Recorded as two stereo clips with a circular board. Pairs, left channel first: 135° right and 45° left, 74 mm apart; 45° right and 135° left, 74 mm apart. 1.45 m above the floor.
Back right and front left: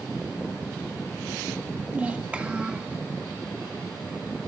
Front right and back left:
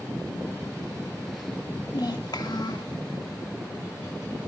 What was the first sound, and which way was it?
A child speaking, 25° right.